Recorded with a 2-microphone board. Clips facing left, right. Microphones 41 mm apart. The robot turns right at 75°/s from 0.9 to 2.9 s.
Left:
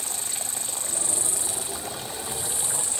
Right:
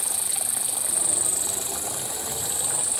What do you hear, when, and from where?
0.0 s an insect: 170° right; by 3.0 s 20° right